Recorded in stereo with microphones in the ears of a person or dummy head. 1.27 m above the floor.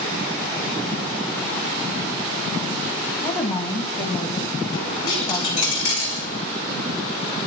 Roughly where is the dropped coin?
Left.